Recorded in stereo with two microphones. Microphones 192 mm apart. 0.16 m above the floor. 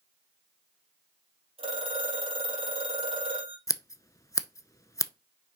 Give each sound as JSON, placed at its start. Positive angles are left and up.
{"t": 1.6, "sound": "a phone ringing", "side_deg": -30, "distance_m": 3.5}
{"t": 3.7, "sound": "scissors", "side_deg": 20, "distance_m": 0.5}